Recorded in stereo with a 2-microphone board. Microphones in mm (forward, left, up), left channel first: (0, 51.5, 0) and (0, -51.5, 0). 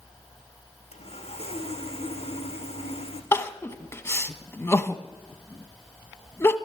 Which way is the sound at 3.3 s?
25° left (ahead or behind).